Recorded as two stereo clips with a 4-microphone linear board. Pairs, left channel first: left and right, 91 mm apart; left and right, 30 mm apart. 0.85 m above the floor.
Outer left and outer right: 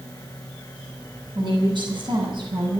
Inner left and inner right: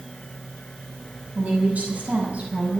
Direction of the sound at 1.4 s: 60° right (ahead or behind).